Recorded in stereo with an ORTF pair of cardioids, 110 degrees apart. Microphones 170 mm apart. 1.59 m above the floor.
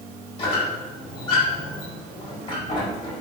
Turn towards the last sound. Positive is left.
turn(degrees=35)